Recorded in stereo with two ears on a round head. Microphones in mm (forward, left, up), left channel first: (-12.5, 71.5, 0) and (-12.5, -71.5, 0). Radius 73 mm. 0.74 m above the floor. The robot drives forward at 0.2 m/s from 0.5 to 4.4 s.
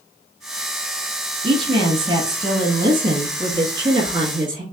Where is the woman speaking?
35° right (ahead or behind), 1.0 m; by 4.6 s 30° right (ahead or behind), 1.2 m.